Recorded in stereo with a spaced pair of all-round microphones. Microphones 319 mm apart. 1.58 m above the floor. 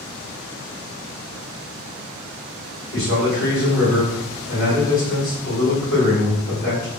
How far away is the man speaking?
About 1.3 m.